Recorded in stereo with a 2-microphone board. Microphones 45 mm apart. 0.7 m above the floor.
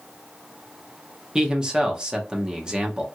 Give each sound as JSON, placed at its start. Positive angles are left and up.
{"t": 1.4, "sound": "a man speaking", "side_deg": -20, "distance_m": 0.7}